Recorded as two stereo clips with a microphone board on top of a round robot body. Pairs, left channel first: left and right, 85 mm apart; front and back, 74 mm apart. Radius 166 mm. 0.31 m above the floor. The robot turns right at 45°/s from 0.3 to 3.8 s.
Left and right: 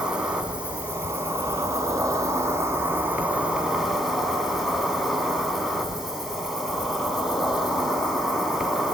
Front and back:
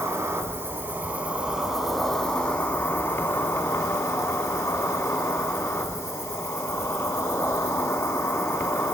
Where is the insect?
170° right, 1.5 m; by 8.9 s 10° right, 1.5 m.